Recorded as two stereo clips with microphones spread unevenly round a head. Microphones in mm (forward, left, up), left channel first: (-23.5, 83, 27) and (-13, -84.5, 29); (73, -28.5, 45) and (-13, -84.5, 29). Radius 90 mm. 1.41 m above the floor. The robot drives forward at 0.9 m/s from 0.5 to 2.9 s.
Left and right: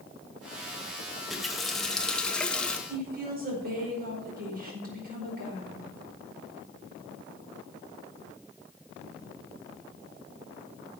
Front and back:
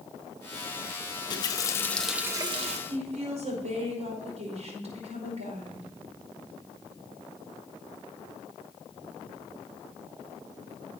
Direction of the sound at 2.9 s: 125° right.